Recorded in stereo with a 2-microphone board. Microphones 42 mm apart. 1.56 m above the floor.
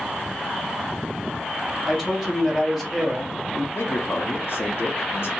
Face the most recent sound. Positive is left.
turn(degrees=70)  # may be behind; listen again after turning